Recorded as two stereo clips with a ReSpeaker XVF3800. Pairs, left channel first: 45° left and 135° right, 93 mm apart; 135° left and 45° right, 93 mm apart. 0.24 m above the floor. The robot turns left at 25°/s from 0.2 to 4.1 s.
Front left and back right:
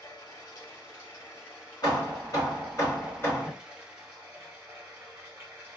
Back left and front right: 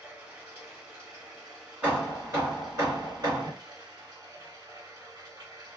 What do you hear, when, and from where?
0.0 s running water: 25° left, 1.4 m; by 5.8 s 75° right, 1.4 m
1.8 s hammering: 25° left, 1.7 m; by 3.5 s 20° right, 1.7 m